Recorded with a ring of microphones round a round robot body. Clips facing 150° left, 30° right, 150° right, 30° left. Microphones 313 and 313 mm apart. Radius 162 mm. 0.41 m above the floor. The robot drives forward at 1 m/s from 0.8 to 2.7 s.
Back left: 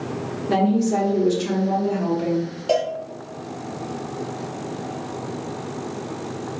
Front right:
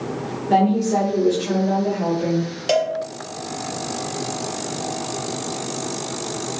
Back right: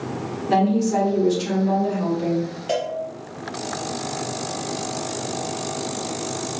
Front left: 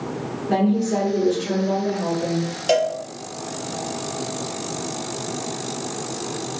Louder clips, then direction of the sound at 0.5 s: Front right 1 dB, even; 170° right.